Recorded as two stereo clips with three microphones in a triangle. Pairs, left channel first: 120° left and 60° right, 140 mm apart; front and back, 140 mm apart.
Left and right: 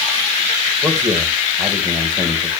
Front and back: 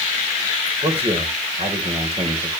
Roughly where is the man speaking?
Behind right.